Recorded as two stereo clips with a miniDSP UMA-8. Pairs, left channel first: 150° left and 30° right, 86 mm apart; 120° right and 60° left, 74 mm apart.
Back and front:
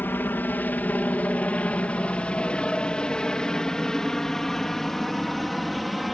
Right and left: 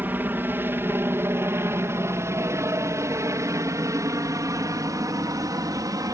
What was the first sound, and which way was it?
A helicopter, 100° left.